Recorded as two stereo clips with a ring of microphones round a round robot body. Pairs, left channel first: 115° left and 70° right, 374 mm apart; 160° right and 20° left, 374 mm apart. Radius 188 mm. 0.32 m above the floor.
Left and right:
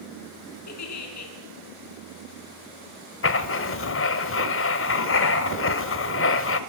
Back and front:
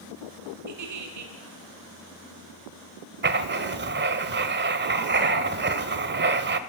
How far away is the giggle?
About 4.5 m.